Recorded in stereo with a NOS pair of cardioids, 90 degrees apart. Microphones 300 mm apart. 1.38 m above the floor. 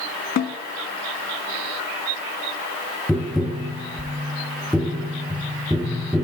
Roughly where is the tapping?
Ahead.